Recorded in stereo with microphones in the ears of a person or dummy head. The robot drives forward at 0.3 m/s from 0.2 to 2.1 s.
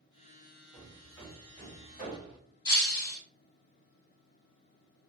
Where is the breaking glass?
20° left (ahead or behind), 0.7 m.